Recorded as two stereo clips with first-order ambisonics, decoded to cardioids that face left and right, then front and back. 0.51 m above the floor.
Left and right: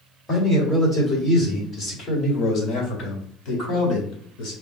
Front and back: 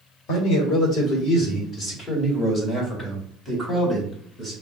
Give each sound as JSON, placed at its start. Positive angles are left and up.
{"t": 0.3, "sound": "a man speaking", "azimuth_deg": 5, "distance_m": 2.0}